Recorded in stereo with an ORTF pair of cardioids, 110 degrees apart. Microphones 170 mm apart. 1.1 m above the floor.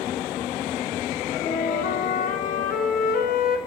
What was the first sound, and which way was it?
A flute, 60° left.